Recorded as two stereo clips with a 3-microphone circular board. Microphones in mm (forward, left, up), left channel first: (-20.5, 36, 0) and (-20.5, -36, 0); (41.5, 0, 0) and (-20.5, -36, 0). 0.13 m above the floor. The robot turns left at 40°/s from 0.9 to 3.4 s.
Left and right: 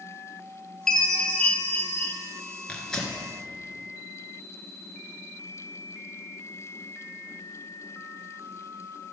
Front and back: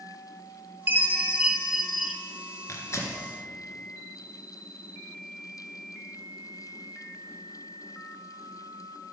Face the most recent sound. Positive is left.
turn(degrees=-5)